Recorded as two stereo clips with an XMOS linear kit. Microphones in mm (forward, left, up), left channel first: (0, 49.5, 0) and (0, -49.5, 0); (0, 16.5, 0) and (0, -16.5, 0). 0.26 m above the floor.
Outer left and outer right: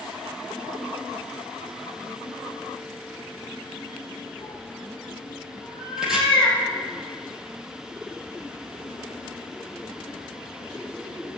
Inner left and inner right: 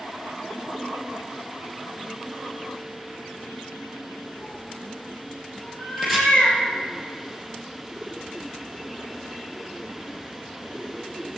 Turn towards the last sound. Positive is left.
turn(degrees=-5)  # may be behind; listen again after turning